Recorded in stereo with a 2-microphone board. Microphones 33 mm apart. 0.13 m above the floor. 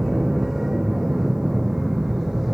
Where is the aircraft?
10° right (ahead or behind).